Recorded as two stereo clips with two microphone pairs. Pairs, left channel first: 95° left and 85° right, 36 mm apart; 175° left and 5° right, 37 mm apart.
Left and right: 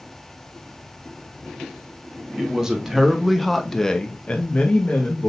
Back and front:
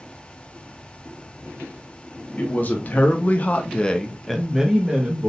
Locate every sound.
2.4 s a woman speaking: 150° right, 1.4 m; by 5.3 s 55° left, 1.1 m